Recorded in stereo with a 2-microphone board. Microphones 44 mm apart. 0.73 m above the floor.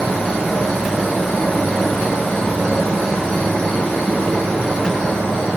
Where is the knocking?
No knocking in this recording.